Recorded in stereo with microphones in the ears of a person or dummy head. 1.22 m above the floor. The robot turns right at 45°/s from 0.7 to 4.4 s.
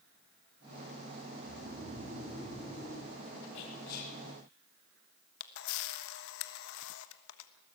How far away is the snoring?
About 3.5 m.